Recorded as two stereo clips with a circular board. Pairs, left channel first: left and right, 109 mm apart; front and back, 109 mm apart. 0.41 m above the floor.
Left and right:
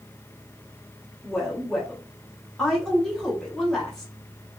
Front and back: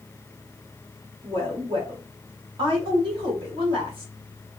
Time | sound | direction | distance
1.2 | a woman speaking | 175° left | 1.4 m